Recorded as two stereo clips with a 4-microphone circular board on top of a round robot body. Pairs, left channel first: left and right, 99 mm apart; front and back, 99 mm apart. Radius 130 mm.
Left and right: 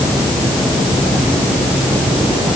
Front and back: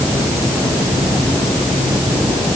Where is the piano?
No piano in this recording.